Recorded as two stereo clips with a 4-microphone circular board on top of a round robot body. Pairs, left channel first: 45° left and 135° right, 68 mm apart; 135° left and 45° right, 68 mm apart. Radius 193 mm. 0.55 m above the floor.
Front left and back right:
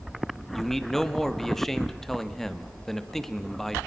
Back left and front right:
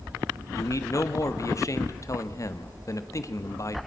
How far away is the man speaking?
About 1.6 m.